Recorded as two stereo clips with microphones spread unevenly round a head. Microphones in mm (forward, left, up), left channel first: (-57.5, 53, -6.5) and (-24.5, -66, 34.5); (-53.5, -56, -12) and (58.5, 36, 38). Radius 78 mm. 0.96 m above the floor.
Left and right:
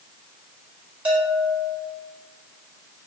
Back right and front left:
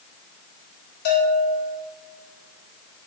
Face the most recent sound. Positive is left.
turn(degrees=-155)